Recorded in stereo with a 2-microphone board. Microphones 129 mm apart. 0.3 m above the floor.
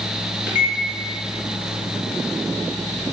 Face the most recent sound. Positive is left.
turn(degrees=-15)  # may be behind; listen again after turning